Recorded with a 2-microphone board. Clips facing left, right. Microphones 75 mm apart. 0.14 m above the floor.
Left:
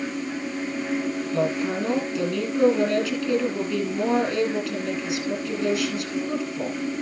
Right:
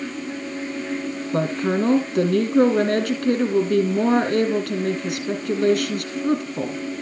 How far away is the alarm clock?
I don't hear an alarm clock.